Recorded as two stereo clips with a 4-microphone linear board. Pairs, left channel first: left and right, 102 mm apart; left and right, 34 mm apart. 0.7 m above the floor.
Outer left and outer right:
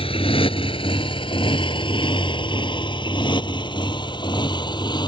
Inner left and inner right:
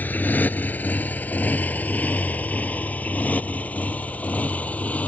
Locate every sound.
0.0 s a motorcycle: 65° left (ahead or behind); by 5.1 s 45° left (ahead or behind)